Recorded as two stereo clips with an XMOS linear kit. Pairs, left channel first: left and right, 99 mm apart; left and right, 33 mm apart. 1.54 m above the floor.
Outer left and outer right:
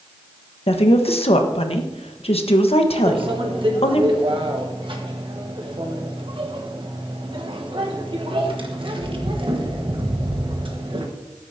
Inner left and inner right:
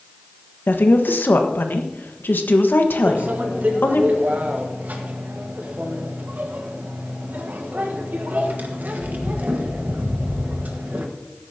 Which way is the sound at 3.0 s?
60° right (ahead or behind).